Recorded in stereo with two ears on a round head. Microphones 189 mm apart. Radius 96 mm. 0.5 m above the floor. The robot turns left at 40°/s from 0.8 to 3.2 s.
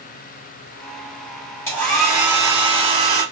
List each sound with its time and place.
1.7 s a hair dryer: 15° left, 3 m; by 3.2 s 50° right, 3 m